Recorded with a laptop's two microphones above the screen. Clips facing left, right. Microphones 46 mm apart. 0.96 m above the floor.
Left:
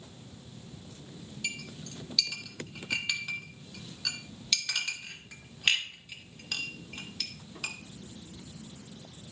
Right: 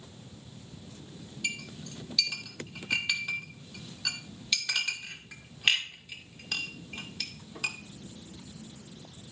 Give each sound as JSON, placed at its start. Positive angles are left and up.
{"t": 1.4, "sound": "a clink", "side_deg": -5, "distance_m": 1.9}